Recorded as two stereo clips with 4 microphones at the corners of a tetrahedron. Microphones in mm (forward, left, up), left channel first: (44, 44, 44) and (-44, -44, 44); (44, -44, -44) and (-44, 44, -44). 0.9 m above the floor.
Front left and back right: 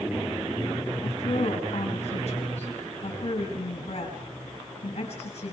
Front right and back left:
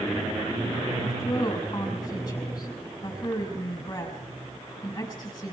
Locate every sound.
1.0 s a woman speaking: 10° left, 6 m